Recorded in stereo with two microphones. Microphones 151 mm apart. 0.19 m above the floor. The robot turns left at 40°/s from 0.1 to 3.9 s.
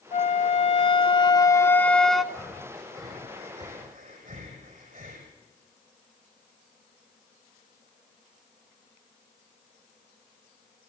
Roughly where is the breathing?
Centre.